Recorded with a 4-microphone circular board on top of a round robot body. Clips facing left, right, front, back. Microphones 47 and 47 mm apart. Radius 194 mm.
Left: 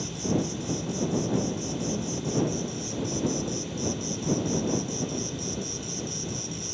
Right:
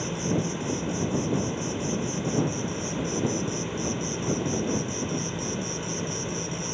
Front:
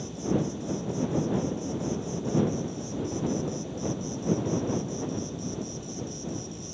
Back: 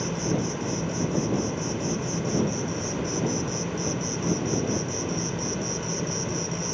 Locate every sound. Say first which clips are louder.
0.0 s an insect: right 1 dB, back 2 dB; 150° right